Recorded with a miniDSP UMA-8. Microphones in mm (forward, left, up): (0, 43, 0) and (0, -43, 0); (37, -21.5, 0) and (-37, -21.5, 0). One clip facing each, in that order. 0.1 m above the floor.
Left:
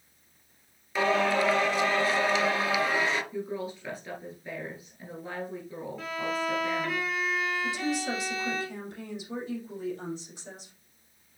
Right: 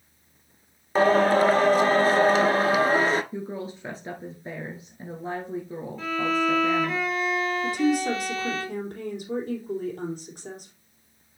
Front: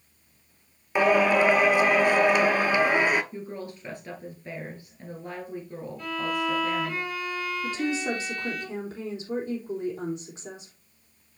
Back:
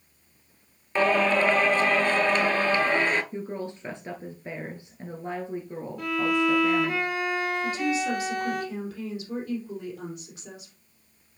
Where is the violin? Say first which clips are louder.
Right 7 dB, back 5 dB; 175° left, 3.5 m.